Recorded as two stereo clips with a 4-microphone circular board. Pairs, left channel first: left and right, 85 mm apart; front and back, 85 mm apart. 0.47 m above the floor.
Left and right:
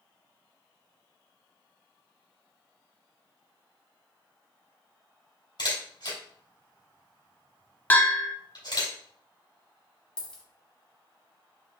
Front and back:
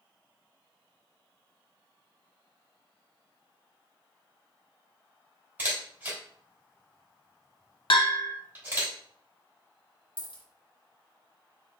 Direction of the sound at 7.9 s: 20° left.